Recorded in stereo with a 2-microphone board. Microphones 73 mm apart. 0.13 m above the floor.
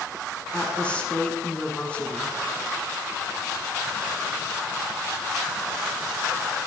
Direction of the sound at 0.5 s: 15° left (ahead or behind).